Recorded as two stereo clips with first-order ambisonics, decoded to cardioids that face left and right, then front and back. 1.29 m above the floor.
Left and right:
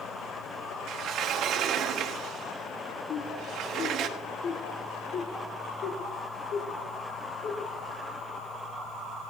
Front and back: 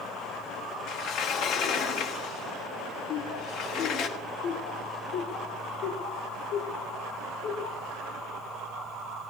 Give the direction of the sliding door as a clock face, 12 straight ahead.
1 o'clock.